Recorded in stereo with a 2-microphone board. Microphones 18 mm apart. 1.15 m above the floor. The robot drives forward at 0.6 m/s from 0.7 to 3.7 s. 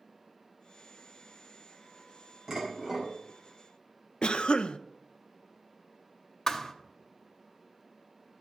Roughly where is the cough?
Left.